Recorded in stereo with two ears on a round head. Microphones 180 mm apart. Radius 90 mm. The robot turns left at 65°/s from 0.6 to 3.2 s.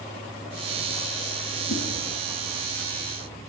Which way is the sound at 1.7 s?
70° left (ahead or behind).